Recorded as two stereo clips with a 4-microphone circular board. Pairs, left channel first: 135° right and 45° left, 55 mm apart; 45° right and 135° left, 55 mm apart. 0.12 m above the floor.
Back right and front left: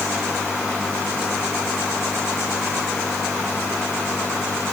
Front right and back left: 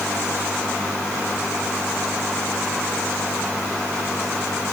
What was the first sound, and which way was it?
Only background noise.